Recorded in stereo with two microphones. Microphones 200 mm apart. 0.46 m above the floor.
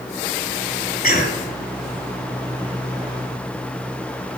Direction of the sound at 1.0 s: 45° left (ahead or behind).